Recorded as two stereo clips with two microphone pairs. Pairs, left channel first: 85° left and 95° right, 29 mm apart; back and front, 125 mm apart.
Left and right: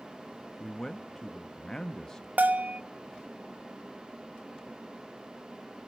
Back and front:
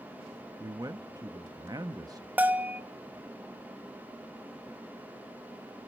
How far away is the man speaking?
About 0.7 m.